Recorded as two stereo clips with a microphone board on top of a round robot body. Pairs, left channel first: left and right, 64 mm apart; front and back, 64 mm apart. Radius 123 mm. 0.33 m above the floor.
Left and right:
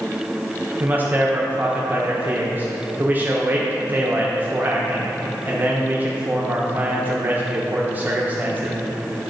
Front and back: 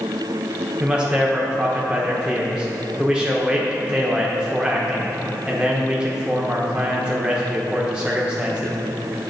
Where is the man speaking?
120° right, 1.1 m.